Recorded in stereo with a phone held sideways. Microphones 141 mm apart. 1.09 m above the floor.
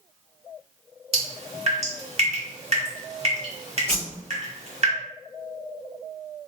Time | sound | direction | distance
1.1 | dripping | 45° right (ahead or behind) | 1.1 m
3.9 | a whoosh | 15° right (ahead or behind) | 1.6 m